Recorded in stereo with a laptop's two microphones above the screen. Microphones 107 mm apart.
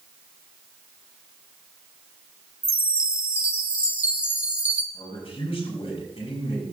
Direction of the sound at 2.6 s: 10° right (ahead or behind).